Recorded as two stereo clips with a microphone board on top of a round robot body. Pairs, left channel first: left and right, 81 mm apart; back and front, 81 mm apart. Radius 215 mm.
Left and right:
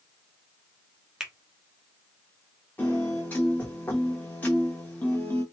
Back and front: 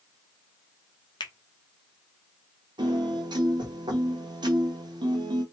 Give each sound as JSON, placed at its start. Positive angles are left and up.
{"t": 1.2, "sound": "a finger snap", "azimuth_deg": -170, "distance_m": 1.2}
{"t": 2.8, "sound": "a piano", "azimuth_deg": 20, "distance_m": 0.8}